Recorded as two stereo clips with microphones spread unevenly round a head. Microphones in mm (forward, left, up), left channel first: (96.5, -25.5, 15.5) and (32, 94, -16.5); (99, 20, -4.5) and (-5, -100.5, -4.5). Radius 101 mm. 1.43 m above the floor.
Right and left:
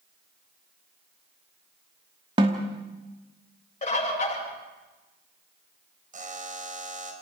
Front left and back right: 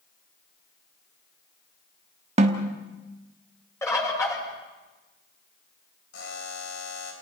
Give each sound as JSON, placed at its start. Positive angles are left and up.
{"t": 2.4, "sound": "a snare drum", "azimuth_deg": -175, "distance_m": 1.2}
{"t": 3.8, "sound": "a bird", "azimuth_deg": -25, "distance_m": 8.5}
{"t": 6.1, "sound": "a buzzer", "azimuth_deg": 85, "distance_m": 3.5}